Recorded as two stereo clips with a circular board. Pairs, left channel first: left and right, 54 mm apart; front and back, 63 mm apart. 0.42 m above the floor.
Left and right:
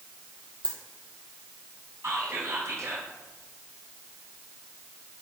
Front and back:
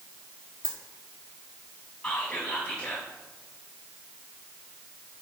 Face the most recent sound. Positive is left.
turn(degrees=-70)